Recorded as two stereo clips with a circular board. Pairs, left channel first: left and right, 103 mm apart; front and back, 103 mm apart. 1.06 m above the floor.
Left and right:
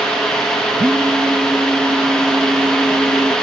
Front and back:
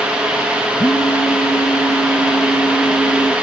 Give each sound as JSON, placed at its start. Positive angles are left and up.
{"t": 0.8, "sound": "a phone buzzing", "azimuth_deg": -50, "distance_m": 0.9}